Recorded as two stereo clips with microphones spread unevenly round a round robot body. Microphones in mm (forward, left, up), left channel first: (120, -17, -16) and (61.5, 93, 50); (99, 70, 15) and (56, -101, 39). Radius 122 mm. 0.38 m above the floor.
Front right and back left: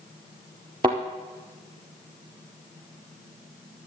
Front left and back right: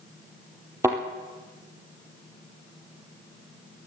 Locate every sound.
0.8 s a thud: straight behind, 1.2 m